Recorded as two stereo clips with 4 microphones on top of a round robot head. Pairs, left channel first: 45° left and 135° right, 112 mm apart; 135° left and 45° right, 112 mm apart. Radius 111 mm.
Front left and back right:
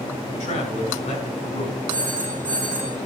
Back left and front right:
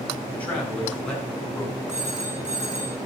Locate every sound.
0.3 s a man speaking: 60° left, 4.5 m; by 1.8 s 45° left, 5.5 m
1.9 s a phone ringing: 30° right, 3 m